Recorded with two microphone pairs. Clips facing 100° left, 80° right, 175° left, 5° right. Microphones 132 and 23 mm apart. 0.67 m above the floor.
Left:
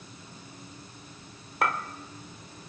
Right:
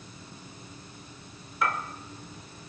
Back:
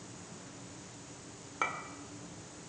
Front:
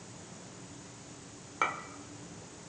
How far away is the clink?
About 1.7 m.